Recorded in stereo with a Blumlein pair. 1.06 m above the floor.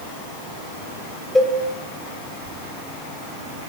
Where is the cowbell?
Straight ahead, 1.1 m.